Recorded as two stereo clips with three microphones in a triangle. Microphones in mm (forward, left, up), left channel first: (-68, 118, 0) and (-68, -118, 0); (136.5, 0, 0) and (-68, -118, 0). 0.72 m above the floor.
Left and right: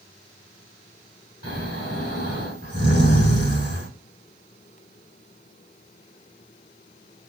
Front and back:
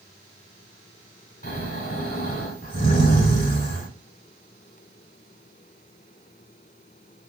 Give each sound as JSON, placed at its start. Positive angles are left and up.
{"t": 1.4, "sound": "snoring", "azimuth_deg": 80, "distance_m": 2.0}